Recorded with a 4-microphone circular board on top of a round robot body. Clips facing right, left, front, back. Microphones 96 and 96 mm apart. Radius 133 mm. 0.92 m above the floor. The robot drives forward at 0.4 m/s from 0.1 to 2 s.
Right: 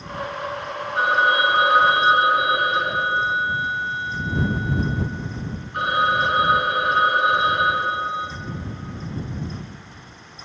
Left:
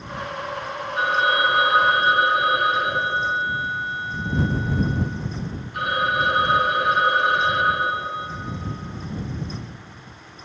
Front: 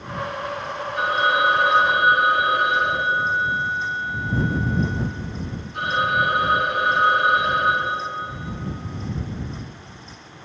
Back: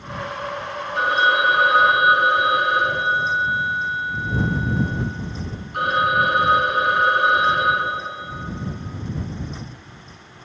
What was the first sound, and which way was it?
A phone ringing, 140° right.